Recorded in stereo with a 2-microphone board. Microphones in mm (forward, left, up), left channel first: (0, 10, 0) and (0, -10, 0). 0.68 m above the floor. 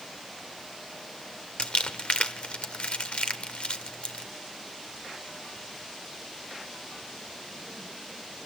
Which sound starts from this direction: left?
Crumpling, at 1.6 s.